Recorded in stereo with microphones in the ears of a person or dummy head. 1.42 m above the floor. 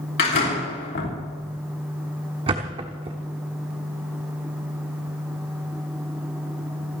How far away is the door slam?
About 3.5 m.